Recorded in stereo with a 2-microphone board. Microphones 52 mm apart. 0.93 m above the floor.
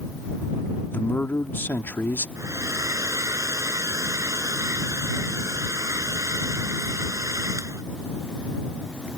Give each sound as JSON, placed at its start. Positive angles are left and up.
{"t": 0.9, "sound": "a man speaking", "side_deg": 40}
{"t": 2.4, "sound": "a hair dryer", "side_deg": -80}